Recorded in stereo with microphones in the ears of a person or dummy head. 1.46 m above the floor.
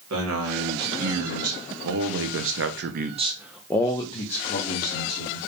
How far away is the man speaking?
About 2 m.